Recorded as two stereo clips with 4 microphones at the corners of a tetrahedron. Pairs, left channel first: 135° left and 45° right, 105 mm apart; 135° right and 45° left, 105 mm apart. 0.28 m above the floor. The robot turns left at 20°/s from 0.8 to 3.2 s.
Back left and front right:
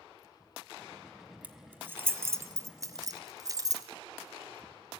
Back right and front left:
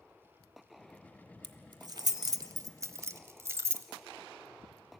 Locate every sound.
1.4 s keys jangling: 25° left, 0.9 m; by 3.9 s 10° right, 0.9 m